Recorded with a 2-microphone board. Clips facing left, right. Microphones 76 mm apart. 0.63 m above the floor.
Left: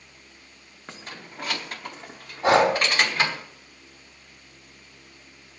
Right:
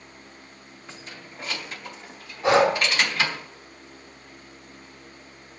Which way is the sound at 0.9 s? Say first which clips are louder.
Left 3 dB; 55° left (ahead or behind).